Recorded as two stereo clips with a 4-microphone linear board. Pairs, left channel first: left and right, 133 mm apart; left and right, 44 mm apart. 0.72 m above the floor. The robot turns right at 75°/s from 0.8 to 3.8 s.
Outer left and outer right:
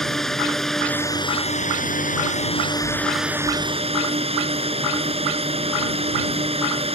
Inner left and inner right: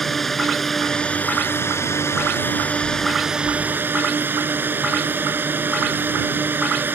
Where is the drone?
5° left; by 7.0 s 130° right.